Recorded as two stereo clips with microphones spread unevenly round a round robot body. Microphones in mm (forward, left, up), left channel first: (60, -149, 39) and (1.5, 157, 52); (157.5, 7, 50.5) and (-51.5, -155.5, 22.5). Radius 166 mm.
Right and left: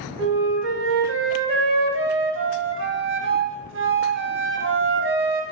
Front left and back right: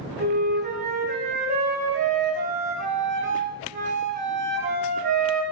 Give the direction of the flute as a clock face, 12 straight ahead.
7 o'clock.